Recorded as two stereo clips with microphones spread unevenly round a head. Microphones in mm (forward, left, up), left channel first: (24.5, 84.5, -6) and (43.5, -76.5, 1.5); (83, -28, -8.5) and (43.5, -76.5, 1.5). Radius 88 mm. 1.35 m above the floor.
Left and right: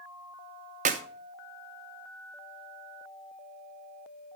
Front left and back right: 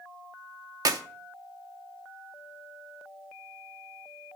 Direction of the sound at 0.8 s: 135° right.